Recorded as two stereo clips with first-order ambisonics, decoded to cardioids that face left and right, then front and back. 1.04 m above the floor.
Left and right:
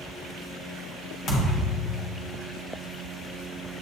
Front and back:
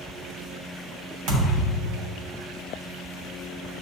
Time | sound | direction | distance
1.3 | a thud | 145° left | 1.2 m